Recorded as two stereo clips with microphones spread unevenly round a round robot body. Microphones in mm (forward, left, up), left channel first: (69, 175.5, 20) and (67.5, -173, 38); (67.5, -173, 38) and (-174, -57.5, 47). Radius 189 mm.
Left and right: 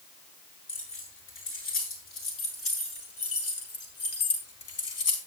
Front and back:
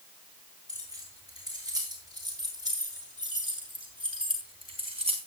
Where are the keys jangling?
35° left, 8.5 m; by 5.2 s 45° left, 4.5 m.